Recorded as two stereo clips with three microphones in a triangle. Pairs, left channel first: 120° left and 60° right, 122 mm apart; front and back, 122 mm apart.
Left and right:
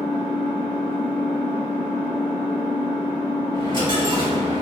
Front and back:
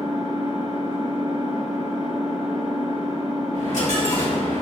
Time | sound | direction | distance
0.0 | an engine running | 120° left | 1.1 m
3.5 | a dropped coin | 15° right | 1.1 m